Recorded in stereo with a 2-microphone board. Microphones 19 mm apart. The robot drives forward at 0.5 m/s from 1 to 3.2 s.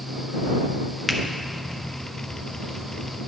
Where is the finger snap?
20° left (ahead or behind), 0.6 m.